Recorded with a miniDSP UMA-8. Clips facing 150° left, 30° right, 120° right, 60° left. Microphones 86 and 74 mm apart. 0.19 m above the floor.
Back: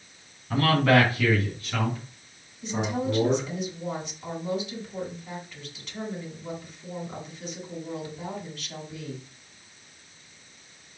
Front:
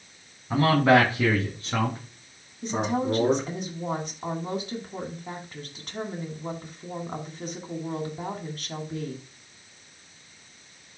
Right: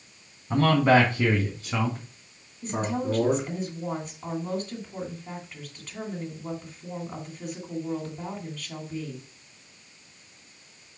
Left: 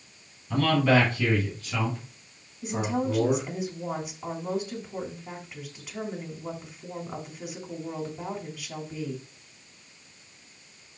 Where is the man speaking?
90° right, 1.5 m; by 3.5 s 70° right, 2.5 m.